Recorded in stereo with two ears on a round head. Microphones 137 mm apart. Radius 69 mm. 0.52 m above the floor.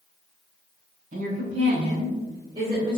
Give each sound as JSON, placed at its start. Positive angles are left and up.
{"t": 1.1, "sound": "a woman speaking", "side_deg": -50, "distance_m": 2.0}